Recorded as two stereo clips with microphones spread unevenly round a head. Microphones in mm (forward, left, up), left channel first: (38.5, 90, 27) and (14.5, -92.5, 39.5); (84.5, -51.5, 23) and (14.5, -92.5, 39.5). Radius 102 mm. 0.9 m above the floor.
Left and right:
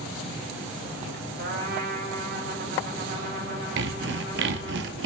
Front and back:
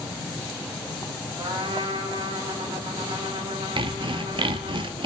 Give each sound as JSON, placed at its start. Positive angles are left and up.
{"t": 1.4, "sound": "a trumpet", "azimuth_deg": -140, "distance_m": 3.5}
{"t": 3.8, "sound": "sawing", "azimuth_deg": -130, "distance_m": 1.0}